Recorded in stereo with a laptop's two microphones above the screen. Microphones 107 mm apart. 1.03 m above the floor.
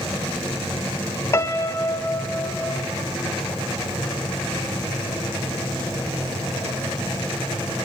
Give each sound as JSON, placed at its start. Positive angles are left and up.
{"t": 1.3, "sound": "a piano", "side_deg": 25, "distance_m": 0.7}